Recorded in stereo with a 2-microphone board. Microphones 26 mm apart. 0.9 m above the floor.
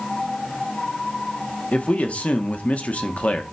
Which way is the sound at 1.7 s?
55° left (ahead or behind).